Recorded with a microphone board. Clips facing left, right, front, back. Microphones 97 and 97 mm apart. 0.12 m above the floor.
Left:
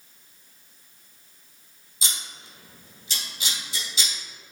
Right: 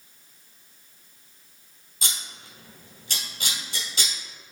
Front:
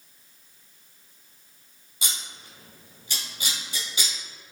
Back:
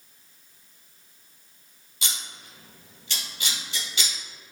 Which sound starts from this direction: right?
Scissors, at 2.0 s.